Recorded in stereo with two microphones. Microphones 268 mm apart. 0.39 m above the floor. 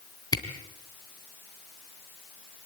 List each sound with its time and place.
0.3 s a camera shutter: 15° left (ahead or behind), 3 m